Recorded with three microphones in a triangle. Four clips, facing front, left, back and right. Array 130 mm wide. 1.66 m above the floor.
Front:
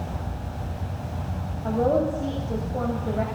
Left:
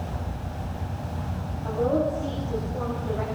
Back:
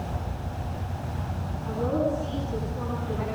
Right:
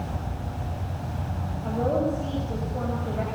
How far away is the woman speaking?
About 8 m.